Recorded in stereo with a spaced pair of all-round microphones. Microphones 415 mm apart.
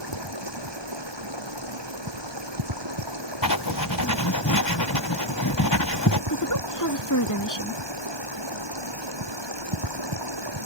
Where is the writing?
50° left (ahead or behind).